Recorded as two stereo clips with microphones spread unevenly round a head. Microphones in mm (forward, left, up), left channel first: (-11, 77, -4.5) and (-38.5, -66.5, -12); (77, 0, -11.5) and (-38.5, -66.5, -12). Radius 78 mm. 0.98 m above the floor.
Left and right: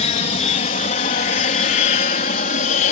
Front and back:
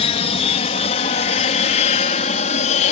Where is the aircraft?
55° left.